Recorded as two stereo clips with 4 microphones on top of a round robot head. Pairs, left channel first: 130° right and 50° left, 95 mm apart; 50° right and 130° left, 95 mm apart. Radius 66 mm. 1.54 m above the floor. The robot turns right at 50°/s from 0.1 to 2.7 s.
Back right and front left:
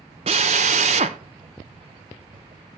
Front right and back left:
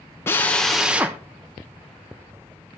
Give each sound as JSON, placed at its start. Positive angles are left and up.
{"t": 0.3, "sound": "a drill", "azimuth_deg": 20, "distance_m": 0.6}